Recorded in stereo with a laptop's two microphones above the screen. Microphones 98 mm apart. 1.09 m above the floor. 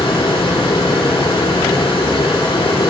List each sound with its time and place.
0.0 s a fan: 80° left, 6.5 m